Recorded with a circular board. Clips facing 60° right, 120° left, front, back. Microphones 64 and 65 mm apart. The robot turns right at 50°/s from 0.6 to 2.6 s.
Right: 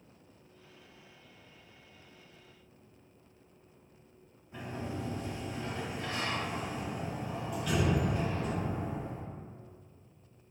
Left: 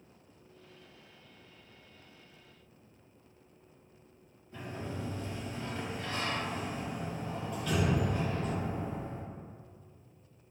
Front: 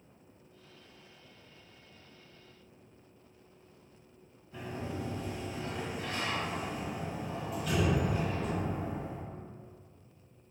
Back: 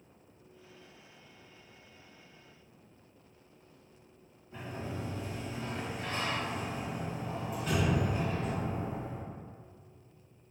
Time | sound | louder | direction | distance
4.5 | a sliding door | right 1 dB, front 1 dB | 130° right | 0.9 m